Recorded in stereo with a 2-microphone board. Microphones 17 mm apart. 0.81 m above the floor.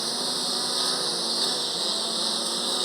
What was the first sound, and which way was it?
A lawn mower, centre (ahead or behind).